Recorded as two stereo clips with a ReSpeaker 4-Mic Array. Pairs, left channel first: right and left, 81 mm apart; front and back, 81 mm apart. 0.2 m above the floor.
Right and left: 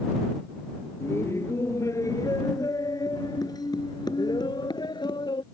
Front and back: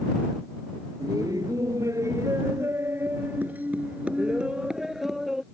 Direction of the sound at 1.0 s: 145° right.